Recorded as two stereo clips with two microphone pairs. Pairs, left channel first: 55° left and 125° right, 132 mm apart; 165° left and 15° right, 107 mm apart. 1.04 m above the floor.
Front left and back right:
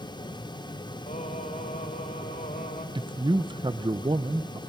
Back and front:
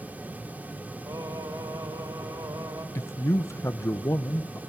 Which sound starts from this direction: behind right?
A man speaking, at 3.0 s.